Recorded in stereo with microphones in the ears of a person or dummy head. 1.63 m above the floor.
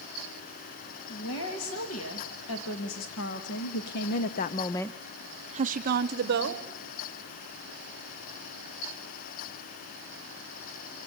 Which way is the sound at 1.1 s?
90° left.